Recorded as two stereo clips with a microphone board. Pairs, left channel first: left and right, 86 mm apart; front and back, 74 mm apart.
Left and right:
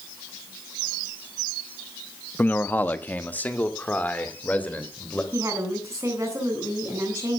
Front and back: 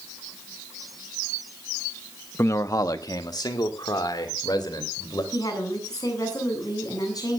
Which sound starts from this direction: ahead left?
A man speaking, at 2.4 s.